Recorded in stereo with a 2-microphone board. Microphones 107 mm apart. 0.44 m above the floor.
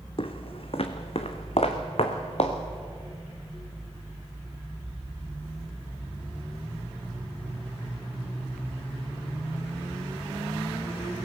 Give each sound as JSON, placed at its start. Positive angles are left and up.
{"t": 0.2, "sound": "footsteps", "side_deg": 55, "distance_m": 1.5}